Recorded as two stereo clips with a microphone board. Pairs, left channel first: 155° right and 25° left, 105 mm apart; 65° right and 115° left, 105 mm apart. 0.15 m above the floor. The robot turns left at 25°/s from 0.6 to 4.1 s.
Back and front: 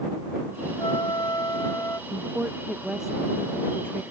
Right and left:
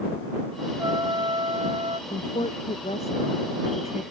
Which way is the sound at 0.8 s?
165° left.